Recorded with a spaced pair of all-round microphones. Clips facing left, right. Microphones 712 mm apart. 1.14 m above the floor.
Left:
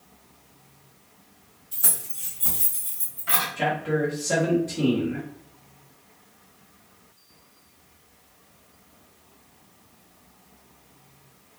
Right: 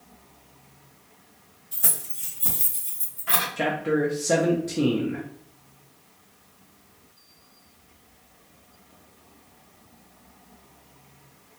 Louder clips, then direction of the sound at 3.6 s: Right 2 dB; 75° right (ahead or behind).